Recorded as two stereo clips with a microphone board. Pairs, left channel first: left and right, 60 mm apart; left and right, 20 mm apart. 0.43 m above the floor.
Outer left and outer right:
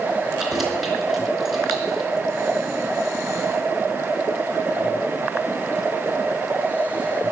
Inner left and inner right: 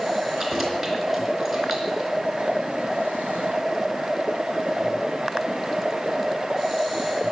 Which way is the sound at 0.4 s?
5° right (ahead or behind).